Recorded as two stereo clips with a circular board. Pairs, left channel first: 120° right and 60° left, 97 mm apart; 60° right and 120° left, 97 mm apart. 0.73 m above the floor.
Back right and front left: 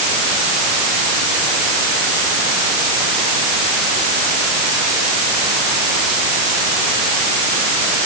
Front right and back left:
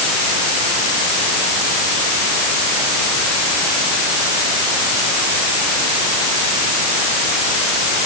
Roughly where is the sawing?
No sawing in this recording.